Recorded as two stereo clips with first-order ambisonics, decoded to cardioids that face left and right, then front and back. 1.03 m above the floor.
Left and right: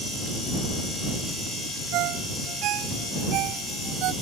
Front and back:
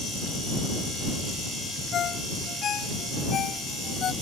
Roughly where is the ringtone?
Ahead right.